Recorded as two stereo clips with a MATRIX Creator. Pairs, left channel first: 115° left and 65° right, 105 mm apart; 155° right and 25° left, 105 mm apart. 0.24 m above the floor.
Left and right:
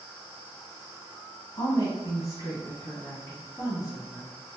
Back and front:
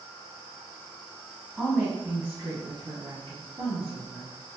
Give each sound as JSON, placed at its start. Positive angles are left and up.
{"t": 1.6, "sound": "a woman speaking", "azimuth_deg": 115, "distance_m": 1.2}